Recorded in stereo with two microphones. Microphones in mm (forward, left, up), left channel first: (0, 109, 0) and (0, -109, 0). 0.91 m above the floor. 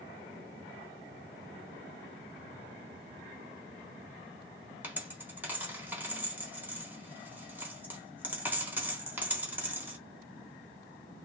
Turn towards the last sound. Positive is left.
turn(degrees=-10)  # may be behind; listen again after turning